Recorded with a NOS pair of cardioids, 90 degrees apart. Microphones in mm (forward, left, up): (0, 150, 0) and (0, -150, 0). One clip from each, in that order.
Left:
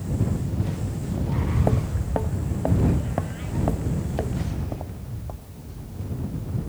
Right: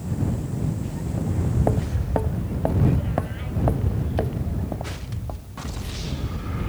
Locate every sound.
1.2 s footsteps: 10° right; by 5.8 s 25° right